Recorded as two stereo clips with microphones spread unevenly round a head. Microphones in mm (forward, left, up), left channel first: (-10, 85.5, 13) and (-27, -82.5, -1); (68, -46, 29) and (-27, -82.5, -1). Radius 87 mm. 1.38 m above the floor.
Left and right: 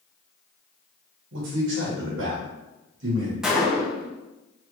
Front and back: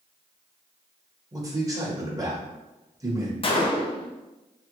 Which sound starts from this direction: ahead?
A gunshot, at 3.4 s.